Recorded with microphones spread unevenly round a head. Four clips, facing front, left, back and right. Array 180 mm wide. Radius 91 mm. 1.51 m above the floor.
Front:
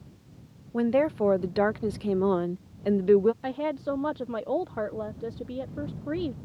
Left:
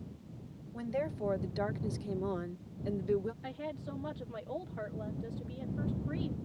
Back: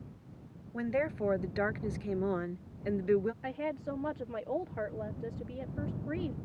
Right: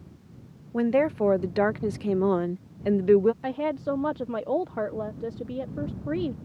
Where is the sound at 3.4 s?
60° right.